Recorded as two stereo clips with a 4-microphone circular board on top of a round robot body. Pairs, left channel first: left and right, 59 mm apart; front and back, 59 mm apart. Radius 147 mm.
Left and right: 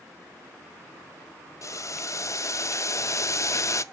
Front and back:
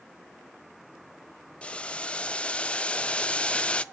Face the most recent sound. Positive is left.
turn(degrees=70)